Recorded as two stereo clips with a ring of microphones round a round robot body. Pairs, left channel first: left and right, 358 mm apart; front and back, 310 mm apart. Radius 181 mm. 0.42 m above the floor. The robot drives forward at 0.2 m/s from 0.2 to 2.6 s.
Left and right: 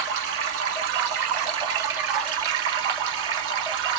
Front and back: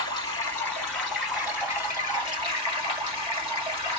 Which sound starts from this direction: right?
Running water, at 0.0 s.